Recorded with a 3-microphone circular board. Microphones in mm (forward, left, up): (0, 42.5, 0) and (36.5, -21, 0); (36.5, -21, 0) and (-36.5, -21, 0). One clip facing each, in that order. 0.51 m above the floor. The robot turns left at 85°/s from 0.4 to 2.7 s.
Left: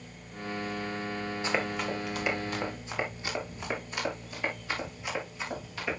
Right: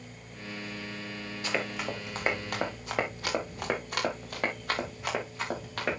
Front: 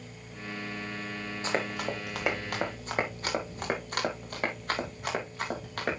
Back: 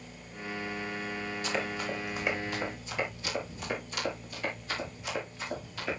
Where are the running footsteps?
55° left, 4 m; by 6.0 s 30° right, 6 m.